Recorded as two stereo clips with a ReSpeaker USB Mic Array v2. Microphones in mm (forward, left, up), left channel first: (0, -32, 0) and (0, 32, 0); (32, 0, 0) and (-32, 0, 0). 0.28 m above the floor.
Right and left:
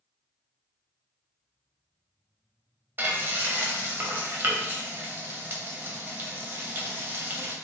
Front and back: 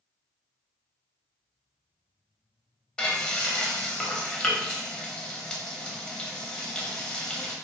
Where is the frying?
70° left, 0.7 m.